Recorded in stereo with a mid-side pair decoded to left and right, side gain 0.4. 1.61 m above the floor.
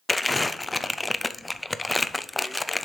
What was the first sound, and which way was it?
Crumpling, 15° left.